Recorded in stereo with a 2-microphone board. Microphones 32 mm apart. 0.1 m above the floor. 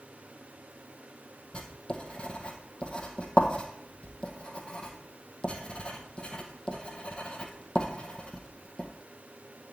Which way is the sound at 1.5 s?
30° left (ahead or behind).